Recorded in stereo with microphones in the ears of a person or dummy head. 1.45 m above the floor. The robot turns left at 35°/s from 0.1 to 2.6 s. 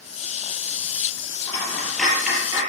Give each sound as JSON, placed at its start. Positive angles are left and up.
{"t": 1.5, "sound": "a dropped coin", "side_deg": 15, "distance_m": 5.5}